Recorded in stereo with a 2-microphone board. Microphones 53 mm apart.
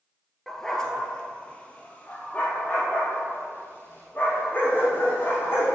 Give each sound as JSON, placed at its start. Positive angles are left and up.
{"t": 0.5, "sound": "a dog barking", "side_deg": 10, "distance_m": 1.1}